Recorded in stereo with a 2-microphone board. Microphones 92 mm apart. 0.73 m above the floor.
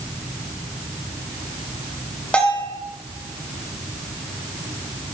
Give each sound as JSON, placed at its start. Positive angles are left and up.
{"t": 2.3, "sound": "a bell", "side_deg": 15, "distance_m": 4.0}